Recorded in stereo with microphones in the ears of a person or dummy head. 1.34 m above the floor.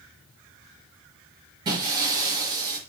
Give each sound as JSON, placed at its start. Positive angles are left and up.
{"t": 1.6, "sound": "breaking glass", "side_deg": -30, "distance_m": 5.0}